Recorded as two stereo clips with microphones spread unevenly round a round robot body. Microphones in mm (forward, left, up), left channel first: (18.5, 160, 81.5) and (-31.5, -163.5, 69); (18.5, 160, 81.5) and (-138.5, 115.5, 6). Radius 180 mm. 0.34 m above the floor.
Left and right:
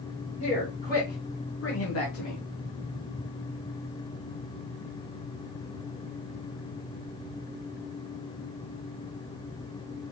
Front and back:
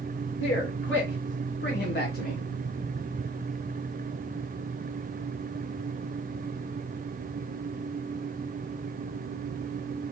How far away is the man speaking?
About 1.8 m.